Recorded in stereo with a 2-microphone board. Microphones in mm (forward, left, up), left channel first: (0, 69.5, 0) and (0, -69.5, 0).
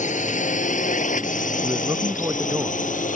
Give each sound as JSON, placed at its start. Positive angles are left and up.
{"t": 0.0, "sound": "a drone", "side_deg": 60}
{"t": 1.6, "sound": "a man speaking", "side_deg": -20}